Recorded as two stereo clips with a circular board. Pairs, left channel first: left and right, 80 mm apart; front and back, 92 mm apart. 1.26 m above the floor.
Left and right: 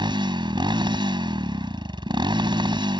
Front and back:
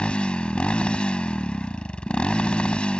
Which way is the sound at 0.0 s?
80° right.